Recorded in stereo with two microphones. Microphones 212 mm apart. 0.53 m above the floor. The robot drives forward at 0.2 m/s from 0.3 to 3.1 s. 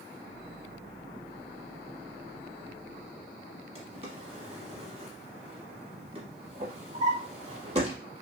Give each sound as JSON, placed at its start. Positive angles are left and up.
{"t": 3.8, "sound": "a drawer", "side_deg": -30, "distance_m": 0.9}